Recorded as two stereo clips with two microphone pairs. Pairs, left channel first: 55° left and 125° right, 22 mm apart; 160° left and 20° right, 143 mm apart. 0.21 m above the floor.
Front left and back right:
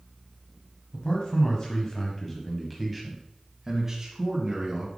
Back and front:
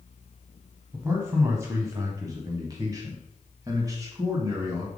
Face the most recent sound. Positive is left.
turn(degrees=-85)